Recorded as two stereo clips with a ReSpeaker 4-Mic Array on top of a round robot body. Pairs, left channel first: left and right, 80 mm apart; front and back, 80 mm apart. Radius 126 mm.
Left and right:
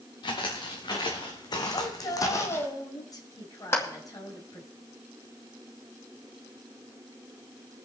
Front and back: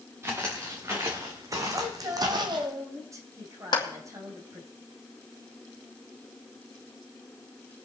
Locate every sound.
0.2 s footsteps: 120° left, 3 m; by 2.7 s 160° left, 0.7 m
1.7 s a woman speaking: 130° left, 3 m
3.7 s a clap: 30° left, 2.5 m